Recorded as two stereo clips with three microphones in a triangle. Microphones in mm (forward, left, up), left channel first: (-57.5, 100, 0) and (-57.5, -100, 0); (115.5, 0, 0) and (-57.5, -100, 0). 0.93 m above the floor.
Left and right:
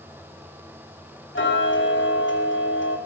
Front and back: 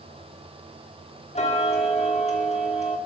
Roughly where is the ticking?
Left.